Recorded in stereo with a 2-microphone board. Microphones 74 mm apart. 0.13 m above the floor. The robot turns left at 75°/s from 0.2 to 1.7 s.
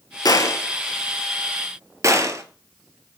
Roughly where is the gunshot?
Left.